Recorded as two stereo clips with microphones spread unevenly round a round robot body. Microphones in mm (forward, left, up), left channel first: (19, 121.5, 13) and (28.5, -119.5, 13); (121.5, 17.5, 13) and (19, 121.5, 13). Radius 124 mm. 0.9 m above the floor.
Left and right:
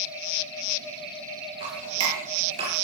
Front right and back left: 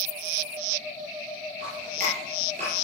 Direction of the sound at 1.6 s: 160° right.